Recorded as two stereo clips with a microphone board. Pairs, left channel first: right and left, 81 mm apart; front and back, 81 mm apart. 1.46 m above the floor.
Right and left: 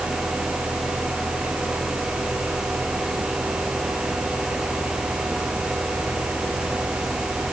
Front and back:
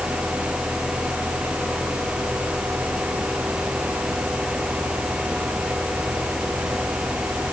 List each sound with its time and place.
Only background noise.